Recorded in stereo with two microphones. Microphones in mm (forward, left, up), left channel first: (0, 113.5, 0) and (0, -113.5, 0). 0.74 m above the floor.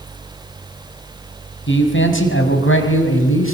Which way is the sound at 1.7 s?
55° left (ahead or behind).